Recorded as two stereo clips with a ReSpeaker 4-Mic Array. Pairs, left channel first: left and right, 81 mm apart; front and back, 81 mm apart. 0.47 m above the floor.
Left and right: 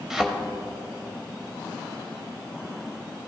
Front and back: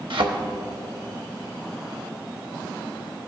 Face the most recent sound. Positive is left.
turn(degrees=-175)